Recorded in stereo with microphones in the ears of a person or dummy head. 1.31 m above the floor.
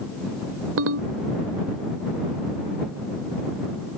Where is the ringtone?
70° right (ahead or behind).